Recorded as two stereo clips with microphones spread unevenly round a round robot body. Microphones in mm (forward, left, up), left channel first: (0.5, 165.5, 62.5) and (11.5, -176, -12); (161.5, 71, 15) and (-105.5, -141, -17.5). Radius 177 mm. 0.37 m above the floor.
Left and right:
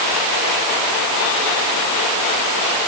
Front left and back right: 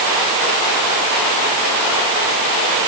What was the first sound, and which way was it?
Only background noise.